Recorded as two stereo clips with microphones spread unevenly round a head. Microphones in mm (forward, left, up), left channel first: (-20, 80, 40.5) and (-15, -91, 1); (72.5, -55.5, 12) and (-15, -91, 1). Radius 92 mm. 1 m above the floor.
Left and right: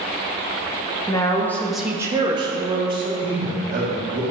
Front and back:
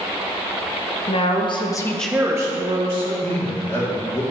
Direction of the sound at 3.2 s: 40° right.